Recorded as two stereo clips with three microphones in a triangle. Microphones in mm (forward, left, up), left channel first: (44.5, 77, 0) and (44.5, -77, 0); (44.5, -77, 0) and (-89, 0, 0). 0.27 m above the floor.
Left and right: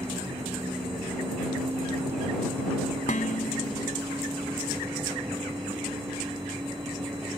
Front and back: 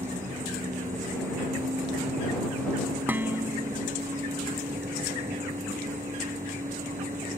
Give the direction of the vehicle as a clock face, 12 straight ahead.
5 o'clock.